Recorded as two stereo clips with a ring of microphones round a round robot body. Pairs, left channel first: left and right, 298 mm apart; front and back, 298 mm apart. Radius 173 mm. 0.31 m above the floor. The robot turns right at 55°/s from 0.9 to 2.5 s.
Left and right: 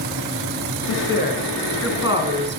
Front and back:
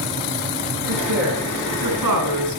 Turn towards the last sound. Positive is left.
turn(degrees=-140)